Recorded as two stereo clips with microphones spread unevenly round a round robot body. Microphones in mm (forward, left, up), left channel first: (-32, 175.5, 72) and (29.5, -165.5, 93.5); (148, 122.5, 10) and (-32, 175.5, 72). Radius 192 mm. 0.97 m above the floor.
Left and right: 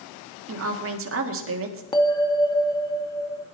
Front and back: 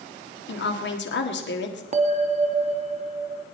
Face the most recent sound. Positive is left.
turn(degrees=180)